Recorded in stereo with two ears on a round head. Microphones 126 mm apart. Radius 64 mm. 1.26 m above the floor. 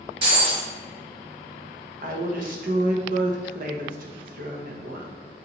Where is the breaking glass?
40° right (ahead or behind), 2.5 m.